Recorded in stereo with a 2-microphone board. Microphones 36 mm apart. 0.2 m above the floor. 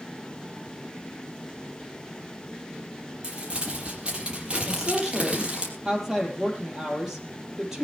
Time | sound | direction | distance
3.2 | crumpling | 30° right (ahead or behind) | 5.5 m
4.7 | a woman speaking | 10° right (ahead or behind) | 6 m